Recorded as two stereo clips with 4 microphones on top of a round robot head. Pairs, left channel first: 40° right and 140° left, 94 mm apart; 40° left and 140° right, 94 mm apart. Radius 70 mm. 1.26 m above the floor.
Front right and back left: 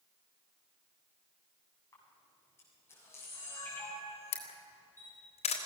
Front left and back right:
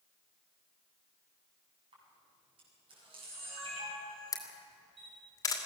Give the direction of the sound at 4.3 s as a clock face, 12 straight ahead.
1 o'clock.